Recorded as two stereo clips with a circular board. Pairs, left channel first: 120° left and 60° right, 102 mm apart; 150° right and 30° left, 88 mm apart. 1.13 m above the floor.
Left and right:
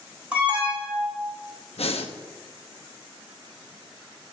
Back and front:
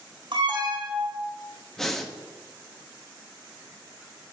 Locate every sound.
0.3 s an alarm: 15° left, 4 m
1.8 s breathing: 125° left, 1.0 m